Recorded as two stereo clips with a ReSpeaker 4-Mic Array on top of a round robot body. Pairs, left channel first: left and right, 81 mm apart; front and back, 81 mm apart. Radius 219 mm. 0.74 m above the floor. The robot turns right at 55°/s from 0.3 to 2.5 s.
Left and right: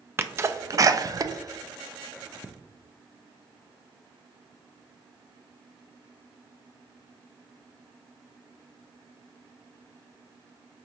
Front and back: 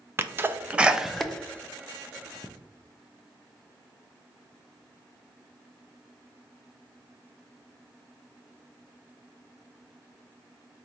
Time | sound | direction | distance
0.2 | a sneeze | 135° right | 0.5 m